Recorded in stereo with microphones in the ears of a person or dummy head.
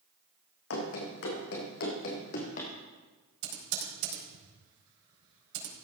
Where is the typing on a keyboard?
75° right (ahead or behind), 4.5 m.